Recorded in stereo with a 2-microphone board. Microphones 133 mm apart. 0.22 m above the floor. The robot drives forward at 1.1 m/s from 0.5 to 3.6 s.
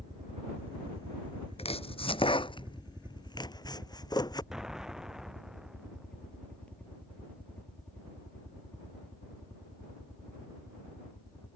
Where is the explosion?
5° right (ahead or behind).